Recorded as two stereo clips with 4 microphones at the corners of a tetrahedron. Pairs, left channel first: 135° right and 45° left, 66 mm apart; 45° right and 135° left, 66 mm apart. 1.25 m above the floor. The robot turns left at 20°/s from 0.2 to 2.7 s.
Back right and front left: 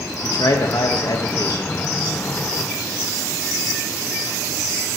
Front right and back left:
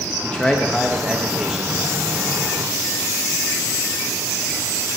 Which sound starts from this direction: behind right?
A man speaking, at 0.2 s.